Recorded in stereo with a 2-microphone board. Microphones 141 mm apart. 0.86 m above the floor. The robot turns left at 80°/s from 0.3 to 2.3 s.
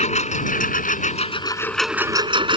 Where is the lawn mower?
125° left; by 2.6 s 35° right.